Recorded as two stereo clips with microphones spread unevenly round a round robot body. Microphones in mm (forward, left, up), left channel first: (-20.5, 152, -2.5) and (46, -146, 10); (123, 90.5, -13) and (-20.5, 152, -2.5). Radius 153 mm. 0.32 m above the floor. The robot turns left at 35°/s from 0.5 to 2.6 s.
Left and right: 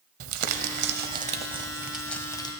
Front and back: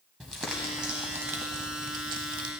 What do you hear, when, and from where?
0.2 s crumpling: 115° right, 1.0 m; by 2.5 s 175° left, 1.0 m